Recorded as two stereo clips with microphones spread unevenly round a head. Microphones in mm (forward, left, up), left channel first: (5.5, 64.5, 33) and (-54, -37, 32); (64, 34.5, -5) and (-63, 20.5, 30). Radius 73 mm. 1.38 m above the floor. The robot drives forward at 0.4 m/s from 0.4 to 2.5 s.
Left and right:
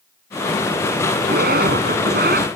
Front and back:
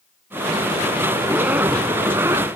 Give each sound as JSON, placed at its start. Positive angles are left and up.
{"t": 1.2, "sound": "a zipper", "azimuth_deg": -100}